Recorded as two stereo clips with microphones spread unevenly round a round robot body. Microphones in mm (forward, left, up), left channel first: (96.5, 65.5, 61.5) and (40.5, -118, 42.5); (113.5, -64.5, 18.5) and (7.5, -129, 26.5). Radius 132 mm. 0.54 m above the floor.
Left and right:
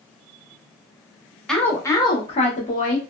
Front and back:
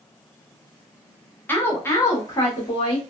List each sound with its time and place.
1.5 s a woman speaking: 20° right, 1.0 m; by 3.0 s 80° left, 1.1 m